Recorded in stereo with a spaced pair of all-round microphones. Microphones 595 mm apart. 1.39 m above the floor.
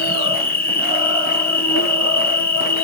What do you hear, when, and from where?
0.0 s an insect: 30° left (ahead or behind), 0.8 m